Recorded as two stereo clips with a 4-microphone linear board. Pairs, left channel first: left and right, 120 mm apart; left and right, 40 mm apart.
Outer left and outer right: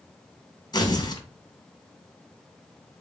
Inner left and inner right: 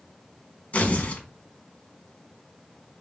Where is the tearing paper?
35° left (ahead or behind), 0.8 m.